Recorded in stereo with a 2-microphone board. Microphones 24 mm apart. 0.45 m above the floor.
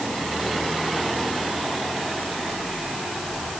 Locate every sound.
Only background noise.